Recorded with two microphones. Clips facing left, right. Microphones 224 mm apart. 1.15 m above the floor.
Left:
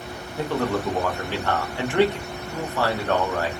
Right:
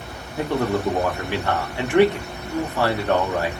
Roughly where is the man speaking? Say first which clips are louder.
Right 2 dB; centre.